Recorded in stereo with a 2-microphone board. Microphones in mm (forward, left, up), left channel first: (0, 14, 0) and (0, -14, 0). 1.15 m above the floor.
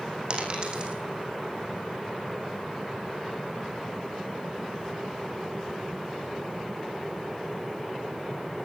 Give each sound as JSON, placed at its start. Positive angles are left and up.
{"t": 0.3, "sound": "a dropped coin", "side_deg": -40, "distance_m": 4.5}